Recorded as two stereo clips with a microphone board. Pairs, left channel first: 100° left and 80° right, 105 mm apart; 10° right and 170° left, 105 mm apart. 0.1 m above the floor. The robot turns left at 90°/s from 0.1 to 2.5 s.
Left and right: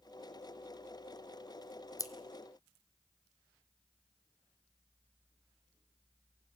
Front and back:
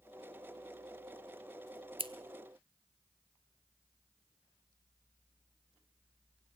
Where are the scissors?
150° left, 0.8 m; by 2.1 s 140° left, 0.8 m.